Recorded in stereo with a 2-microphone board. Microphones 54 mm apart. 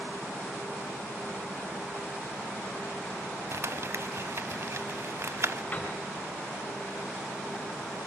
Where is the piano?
30° left (ahead or behind), 4.5 m.